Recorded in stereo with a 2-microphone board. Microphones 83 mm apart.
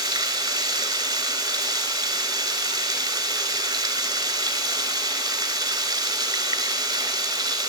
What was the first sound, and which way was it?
Running water, 50° right (ahead or behind).